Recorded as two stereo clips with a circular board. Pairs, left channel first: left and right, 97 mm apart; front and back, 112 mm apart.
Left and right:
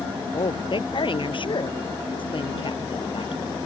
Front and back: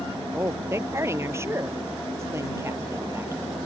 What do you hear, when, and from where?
0.3 s a woman speaking: 115° left